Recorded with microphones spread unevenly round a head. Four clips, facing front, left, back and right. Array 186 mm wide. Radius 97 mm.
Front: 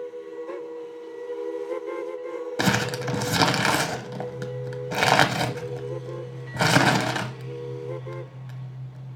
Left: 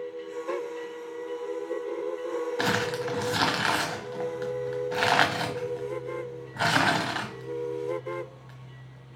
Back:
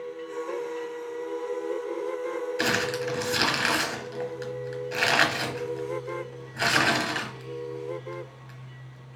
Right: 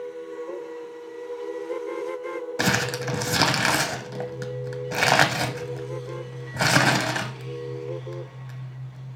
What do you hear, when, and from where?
2.6 s crumpling: 30° right, 0.9 m